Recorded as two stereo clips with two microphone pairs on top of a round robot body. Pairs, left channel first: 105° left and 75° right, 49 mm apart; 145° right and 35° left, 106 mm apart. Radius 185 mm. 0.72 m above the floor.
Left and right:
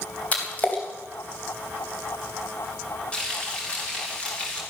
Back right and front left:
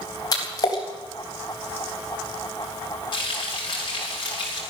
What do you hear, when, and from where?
0.3 s a splash: 160° left, 3.5 m
3.1 s frying: 170° left, 5 m